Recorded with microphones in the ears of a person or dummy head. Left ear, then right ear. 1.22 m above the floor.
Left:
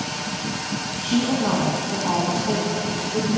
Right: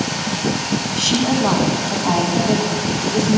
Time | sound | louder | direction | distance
1.0 | a woman speaking | right 5 dB | 70° right (ahead or behind) | 1.4 m